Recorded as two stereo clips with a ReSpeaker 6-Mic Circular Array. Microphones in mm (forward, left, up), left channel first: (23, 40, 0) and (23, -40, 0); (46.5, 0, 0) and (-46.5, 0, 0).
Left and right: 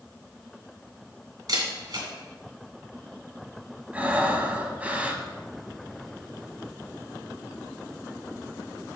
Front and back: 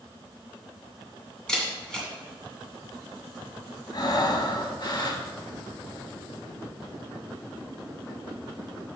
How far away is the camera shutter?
About 2.5 m.